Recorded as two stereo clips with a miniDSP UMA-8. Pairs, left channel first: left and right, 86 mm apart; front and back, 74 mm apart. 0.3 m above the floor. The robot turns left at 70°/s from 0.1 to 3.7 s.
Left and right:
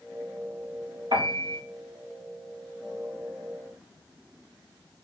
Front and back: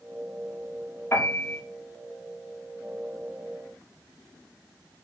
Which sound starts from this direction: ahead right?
A piano, at 1.1 s.